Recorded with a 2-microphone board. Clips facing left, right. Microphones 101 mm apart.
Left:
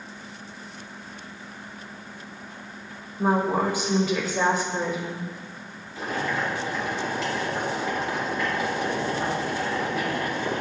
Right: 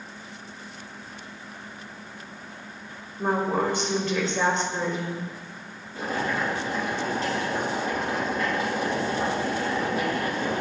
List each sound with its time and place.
3.2 s a woman speaking: 5° left (ahead or behind), 1.1 m
6.0 s boiling: 45° right (ahead or behind), 3 m